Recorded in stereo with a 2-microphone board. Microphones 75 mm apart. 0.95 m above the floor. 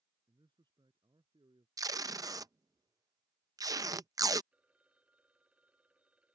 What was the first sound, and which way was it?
A man speaking, 80° right.